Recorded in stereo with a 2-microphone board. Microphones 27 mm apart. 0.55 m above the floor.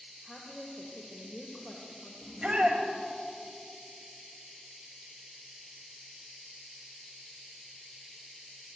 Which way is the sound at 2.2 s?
30° right (ahead or behind).